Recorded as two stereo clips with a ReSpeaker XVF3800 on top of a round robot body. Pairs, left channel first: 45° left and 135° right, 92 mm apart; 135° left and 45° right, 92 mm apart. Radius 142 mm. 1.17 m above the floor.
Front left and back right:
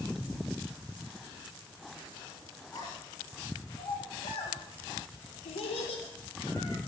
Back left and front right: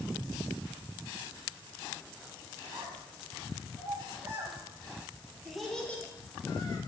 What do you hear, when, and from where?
2.7 s a child speaking: straight ahead, 3.5 m; by 6.8 s 85° left, 1.6 m